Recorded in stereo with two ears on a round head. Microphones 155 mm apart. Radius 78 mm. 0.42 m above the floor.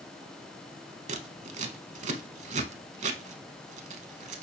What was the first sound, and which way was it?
Scissors, 40° right (ahead or behind).